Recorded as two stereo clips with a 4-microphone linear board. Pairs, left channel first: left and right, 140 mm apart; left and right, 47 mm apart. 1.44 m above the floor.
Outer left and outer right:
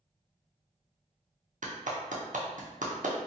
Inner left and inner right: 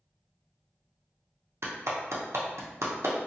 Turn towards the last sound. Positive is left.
turn(degrees=-80)